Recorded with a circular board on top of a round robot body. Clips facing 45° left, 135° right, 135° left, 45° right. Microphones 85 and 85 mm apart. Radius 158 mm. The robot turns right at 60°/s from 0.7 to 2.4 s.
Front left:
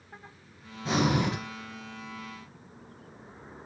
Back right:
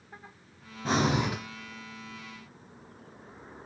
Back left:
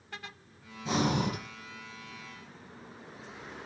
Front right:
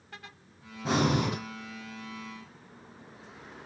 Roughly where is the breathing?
Right.